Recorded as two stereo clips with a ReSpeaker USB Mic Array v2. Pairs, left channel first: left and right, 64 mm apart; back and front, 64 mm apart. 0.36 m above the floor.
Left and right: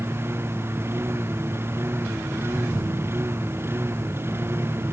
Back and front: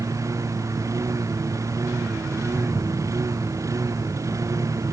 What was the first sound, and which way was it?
A lawn mower, 35° right.